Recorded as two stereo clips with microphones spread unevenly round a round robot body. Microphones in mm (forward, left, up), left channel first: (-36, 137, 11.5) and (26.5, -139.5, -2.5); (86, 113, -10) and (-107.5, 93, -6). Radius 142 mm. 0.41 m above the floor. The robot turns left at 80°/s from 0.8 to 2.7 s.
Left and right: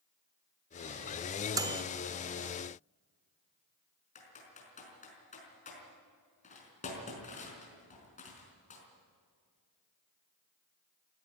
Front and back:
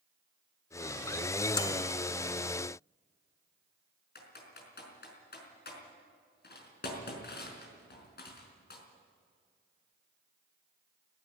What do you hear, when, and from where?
1.6 s a microwave: 25° right, 1.1 m; by 1.8 s 45° right, 1.1 m
4.2 s typing on a keyboard: 40° left, 5 m